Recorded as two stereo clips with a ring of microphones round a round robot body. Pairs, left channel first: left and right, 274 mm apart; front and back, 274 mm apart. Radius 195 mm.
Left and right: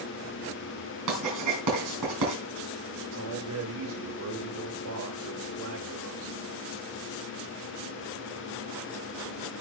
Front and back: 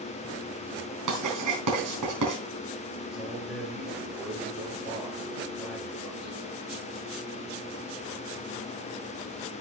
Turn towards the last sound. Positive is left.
turn(degrees=-90)